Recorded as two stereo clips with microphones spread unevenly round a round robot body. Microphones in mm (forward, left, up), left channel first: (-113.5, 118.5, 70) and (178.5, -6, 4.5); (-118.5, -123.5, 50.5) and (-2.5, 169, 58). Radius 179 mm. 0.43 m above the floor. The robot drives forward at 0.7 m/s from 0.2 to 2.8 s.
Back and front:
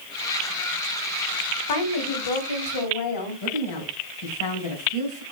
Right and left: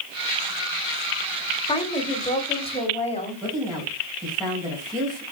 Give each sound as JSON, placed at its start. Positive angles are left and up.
{"t": 1.7, "sound": "a woman speaking", "azimuth_deg": 175, "distance_m": 2.0}
{"t": 3.4, "sound": "a woman speaking", "azimuth_deg": 150, "distance_m": 3.5}